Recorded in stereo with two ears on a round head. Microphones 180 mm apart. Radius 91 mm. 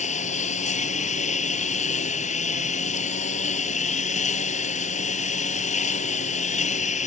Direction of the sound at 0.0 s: 40° left (ahead or behind).